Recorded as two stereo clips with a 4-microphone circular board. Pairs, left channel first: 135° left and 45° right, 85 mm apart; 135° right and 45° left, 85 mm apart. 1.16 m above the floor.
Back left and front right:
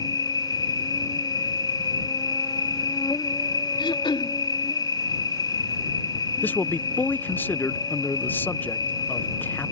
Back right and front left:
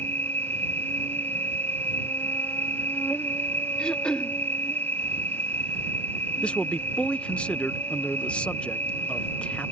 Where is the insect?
165° left.